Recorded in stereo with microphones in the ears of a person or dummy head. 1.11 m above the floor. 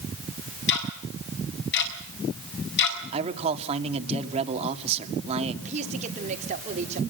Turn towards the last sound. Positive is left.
turn(degrees=-35)  # may be behind; listen again after turning